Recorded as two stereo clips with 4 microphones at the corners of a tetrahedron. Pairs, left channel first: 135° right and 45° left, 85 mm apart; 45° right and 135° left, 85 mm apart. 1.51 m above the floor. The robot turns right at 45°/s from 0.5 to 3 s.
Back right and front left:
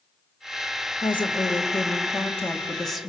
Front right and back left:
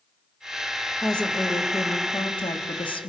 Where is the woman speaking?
135° right, 1.8 m; by 3.1 s 45° right, 1.8 m.